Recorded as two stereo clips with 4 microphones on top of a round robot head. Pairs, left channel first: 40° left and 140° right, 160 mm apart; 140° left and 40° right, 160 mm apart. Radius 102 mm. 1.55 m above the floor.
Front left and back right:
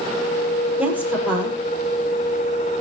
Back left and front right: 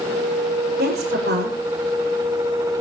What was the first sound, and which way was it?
A woman speaking, 60° right.